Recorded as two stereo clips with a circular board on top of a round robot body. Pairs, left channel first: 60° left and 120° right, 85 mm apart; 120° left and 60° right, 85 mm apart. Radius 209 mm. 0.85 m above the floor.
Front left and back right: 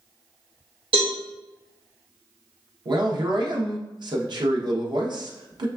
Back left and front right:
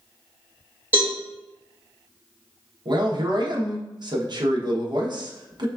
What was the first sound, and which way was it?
A cowbell, 125° right.